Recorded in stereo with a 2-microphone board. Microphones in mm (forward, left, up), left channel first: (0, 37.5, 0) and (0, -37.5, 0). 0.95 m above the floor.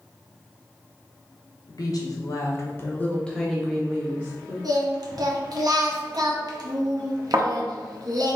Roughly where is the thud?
Right.